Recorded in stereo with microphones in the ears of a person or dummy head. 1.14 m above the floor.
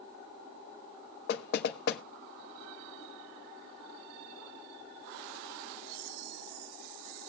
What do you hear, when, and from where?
1.3 s knocking: 60° left (ahead or behind), 0.9 m